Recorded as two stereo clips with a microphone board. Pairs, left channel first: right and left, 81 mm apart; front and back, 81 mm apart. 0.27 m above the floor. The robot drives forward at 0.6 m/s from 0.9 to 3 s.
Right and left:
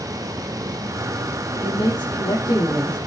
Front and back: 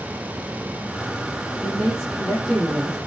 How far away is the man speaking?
About 7 m.